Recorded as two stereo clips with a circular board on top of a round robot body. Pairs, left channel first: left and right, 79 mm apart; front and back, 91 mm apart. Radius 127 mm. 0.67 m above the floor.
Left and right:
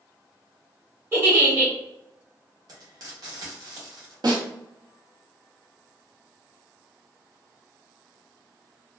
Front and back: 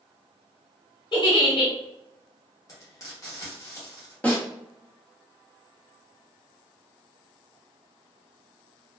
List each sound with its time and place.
1.1 s a giggle: 30° right, 1.3 m
2.7 s frying: 55° right, 1.2 m
4.2 s a snare drum: 75° right, 1.1 m